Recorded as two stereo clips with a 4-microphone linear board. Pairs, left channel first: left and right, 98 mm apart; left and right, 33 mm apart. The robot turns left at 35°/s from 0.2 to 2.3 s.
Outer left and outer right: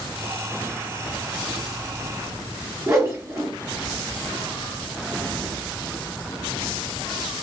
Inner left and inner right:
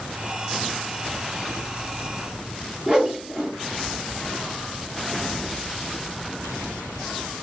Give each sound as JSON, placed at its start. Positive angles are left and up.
{"t": 2.9, "sound": "a whoosh", "side_deg": -25, "distance_m": 1.8}